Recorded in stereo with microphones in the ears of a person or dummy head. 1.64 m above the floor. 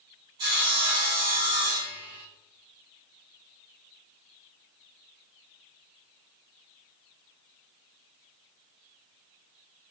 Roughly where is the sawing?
Right.